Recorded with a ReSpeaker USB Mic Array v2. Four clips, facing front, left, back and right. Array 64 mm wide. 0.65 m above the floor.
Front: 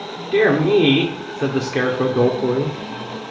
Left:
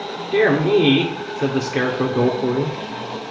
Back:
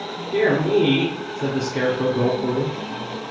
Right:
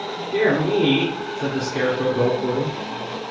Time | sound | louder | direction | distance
0.3 | a man speaking | left 3 dB, front 4 dB | 30° left | 1.9 m